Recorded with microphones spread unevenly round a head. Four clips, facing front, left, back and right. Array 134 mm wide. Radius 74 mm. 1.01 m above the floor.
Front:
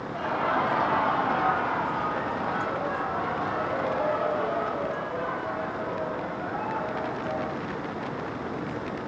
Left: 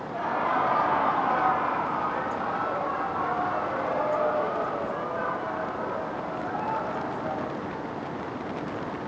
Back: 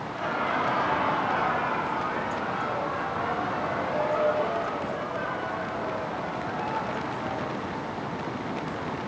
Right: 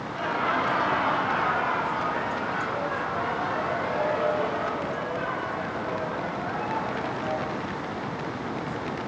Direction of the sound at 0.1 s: 55° left.